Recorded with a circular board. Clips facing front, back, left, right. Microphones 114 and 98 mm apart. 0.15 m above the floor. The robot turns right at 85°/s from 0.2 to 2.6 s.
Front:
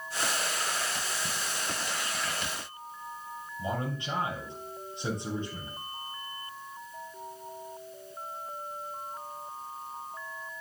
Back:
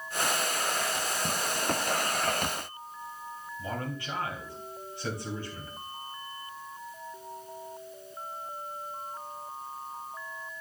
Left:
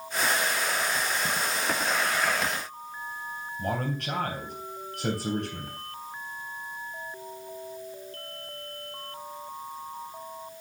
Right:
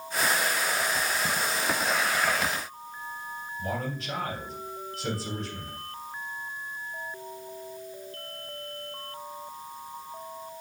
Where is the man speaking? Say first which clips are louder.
Front 3 dB, left 3 dB; 65° left, 3.5 m.